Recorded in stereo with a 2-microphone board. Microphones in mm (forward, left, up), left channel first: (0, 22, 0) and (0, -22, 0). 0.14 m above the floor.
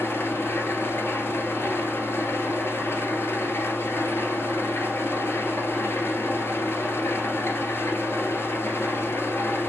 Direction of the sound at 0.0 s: 65° left (ahead or behind).